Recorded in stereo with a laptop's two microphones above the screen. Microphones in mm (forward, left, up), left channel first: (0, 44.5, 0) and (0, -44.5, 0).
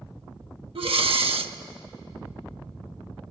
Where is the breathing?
75° right (ahead or behind), 0.8 m.